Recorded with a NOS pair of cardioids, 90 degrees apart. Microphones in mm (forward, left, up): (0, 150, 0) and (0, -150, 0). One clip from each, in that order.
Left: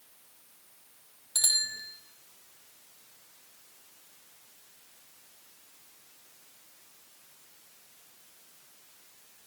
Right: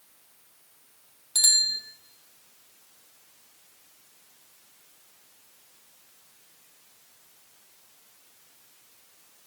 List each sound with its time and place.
1.4 s a bicycle bell: 15° right, 3 m